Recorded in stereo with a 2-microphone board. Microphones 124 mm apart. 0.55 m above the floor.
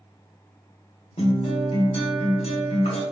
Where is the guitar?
55° left (ahead or behind), 1.3 m.